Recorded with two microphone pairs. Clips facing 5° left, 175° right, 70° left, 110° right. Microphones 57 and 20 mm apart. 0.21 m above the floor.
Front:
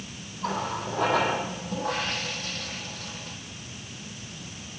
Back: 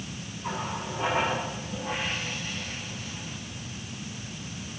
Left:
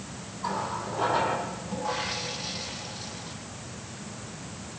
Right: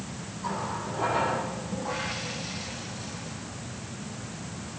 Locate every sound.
0.4 s a running tap: 5° left, 4.5 m